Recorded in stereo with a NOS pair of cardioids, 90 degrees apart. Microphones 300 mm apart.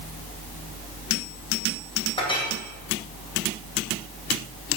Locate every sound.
2.2 s a clink: 15° left, 2 m